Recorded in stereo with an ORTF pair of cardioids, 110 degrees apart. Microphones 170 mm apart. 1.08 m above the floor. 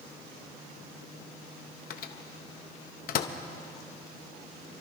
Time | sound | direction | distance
1.9 | a microwave | 55° left | 0.9 m